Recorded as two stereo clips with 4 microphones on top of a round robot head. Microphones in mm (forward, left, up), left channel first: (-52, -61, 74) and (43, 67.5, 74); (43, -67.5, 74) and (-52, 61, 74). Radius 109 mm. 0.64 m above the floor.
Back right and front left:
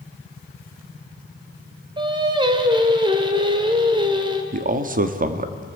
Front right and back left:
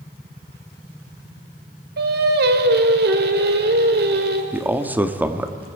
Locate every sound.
2.0 s singing: 115° left, 2 m
4.5 s a man speaking: 50° left, 1.3 m